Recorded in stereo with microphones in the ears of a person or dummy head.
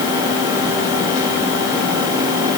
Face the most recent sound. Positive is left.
No sound to turn to.